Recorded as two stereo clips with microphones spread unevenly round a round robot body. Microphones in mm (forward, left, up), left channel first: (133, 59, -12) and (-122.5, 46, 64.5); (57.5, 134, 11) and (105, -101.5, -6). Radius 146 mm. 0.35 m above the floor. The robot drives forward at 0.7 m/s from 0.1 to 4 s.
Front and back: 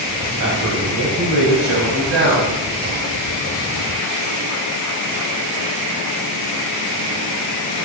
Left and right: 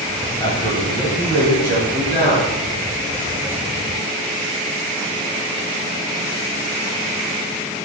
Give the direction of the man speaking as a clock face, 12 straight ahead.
6 o'clock.